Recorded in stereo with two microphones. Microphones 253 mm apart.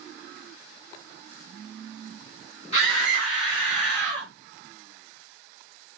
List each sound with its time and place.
2.7 s a scream: 25° left (ahead or behind), 1.9 m; by 4.3 s 45° left (ahead or behind), 2 m